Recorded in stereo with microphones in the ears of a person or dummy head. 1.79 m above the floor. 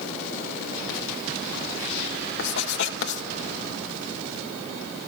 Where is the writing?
65° left (ahead or behind), 2.0 m.